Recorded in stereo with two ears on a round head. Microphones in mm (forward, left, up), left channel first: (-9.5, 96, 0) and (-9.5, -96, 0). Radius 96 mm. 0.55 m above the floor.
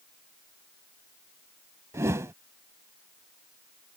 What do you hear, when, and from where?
1.9 s a whoosh: 15° right (ahead or behind)